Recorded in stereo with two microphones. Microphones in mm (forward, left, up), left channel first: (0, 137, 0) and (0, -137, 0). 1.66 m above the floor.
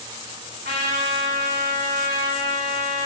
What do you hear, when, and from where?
0.7 s a trumpet: 35° right (ahead or behind), 6 m